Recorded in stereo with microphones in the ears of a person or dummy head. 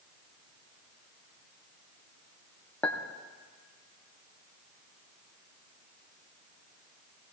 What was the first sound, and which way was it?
A clink, 15° left (ahead or behind).